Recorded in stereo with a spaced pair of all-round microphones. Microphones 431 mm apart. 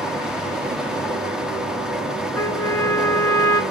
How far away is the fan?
About 0.8 m.